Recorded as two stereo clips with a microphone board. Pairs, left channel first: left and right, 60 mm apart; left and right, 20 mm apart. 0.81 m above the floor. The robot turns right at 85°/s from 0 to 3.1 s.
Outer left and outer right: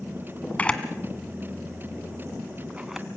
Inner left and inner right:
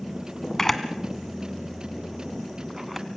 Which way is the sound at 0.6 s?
25° left (ahead or behind).